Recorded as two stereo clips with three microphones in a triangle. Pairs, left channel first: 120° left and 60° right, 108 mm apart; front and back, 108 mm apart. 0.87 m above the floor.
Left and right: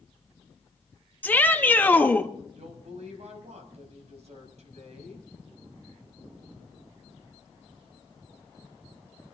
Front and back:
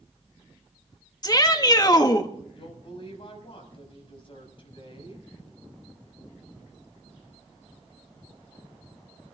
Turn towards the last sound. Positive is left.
turn(degrees=-45)